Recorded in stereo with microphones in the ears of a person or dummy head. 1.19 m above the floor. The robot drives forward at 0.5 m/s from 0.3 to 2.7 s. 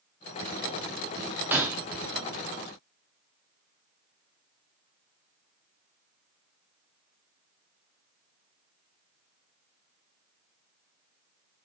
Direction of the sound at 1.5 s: 5° right (ahead or behind).